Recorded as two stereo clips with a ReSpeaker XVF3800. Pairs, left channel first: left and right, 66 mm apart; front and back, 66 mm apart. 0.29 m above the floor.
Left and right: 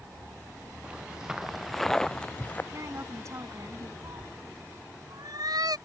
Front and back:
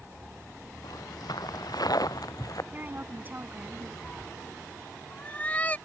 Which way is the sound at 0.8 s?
15° right.